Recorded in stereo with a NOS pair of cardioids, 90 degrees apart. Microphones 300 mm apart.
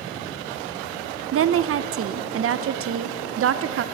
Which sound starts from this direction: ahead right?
A woman speaking, at 1.3 s.